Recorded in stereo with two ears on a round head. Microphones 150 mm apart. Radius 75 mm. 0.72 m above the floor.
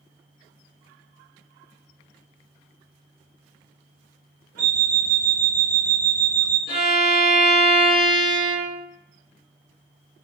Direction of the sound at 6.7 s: 60° left (ahead or behind).